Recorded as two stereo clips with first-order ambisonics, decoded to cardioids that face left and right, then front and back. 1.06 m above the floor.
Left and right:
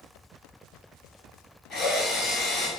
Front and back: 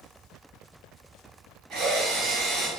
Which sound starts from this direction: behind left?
A drill, at 1.7 s.